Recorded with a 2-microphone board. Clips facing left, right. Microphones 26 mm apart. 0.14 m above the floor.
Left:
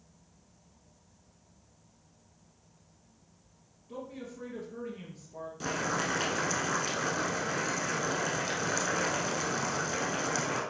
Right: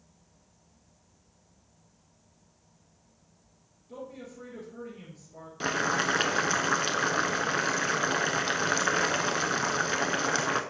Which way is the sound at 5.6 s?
40° right (ahead or behind).